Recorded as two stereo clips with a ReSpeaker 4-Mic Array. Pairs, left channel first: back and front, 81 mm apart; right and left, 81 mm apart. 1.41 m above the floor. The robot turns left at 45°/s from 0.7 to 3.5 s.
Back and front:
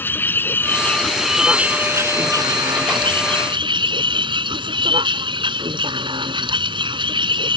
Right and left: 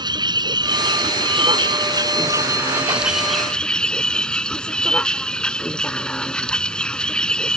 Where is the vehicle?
115° left; by 7.6 s 10° right.